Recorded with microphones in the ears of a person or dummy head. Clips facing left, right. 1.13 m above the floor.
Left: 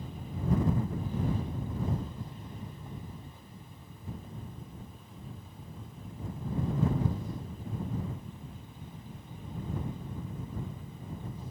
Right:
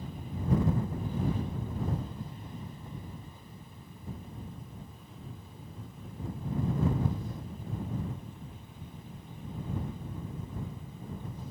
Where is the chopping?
I don't hear chopping.